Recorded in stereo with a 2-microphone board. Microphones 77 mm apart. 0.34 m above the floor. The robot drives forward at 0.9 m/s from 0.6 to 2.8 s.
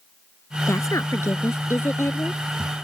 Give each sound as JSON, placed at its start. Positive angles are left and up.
{"t": 0.7, "sound": "a woman speaking", "side_deg": 40}